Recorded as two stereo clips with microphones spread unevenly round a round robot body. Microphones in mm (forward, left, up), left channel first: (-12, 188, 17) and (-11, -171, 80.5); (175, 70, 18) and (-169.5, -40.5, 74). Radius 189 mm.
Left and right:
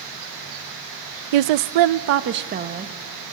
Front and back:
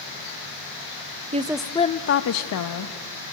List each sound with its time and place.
1.3 s a woman speaking: 90° right, 0.6 m; by 3.2 s 5° right, 1.2 m